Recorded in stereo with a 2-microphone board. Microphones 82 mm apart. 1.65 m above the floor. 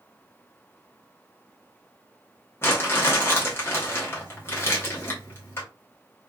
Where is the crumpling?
30° left (ahead or behind), 1.1 m.